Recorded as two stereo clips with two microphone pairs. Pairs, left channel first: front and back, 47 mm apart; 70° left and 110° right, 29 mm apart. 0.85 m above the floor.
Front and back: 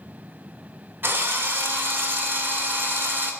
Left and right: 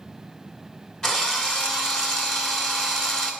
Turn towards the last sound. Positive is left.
turn(degrees=135)